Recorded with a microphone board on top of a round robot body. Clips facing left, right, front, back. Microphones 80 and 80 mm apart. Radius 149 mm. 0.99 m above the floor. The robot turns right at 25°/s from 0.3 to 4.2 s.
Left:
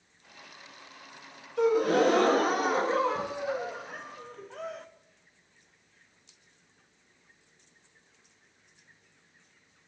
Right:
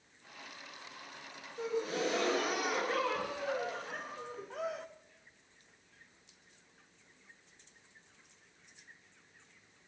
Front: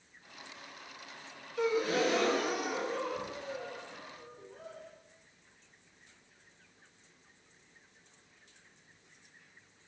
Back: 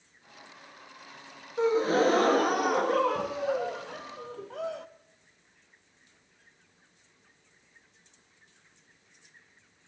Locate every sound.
1.6 s a gasp: 120° left, 1.2 m; by 4.9 s 175° right, 1.2 m